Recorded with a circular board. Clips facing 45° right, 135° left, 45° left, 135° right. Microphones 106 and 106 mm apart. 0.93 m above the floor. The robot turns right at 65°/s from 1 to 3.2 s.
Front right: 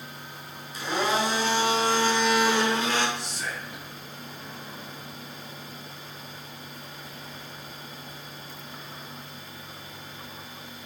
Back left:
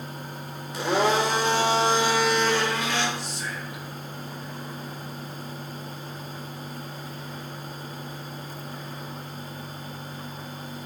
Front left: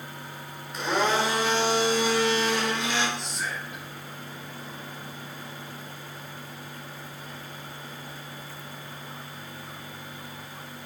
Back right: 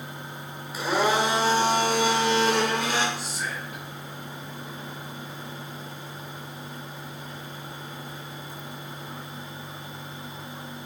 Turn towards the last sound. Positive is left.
turn(degrees=-50)